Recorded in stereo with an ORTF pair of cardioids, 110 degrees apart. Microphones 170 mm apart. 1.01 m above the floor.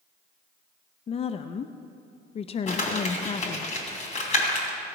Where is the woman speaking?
35° left, 0.5 m.